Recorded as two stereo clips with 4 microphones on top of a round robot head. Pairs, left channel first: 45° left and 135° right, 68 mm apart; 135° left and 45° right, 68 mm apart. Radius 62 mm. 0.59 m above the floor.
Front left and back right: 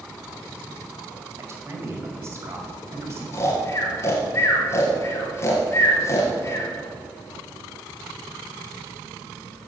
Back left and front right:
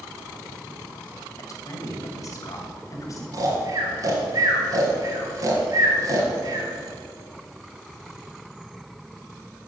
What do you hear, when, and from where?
1.4 s a man speaking: 175° left, 3 m
3.3 s snoring: 5° right, 3 m